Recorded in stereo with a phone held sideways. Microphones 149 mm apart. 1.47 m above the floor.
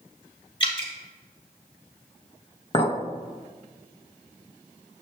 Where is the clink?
35° left (ahead or behind), 0.7 m.